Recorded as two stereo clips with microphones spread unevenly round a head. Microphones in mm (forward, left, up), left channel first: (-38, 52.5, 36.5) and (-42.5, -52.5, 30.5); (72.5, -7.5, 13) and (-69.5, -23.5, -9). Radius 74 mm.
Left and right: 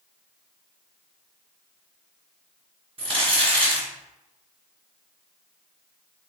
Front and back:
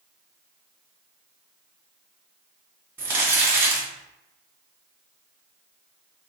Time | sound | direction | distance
3.0 | crumpling | 105° right | 1.5 m